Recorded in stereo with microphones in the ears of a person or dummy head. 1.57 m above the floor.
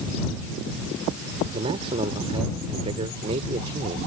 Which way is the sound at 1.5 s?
30° right (ahead or behind).